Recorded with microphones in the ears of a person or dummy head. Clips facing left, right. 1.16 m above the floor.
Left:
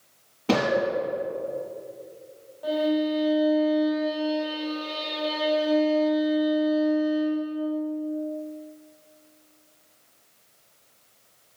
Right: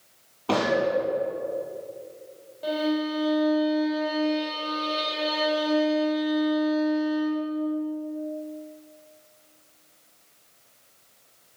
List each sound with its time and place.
0.5 s a gunshot: 25° left (ahead or behind), 4 m
2.6 s a violin: 35° right (ahead or behind), 3.5 m